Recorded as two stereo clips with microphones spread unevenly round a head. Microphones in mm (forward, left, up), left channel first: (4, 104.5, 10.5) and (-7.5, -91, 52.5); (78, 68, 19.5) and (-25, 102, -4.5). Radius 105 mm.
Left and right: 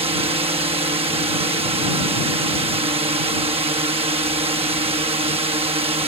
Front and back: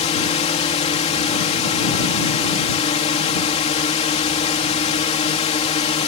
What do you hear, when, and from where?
0.0 s a drone: 30° right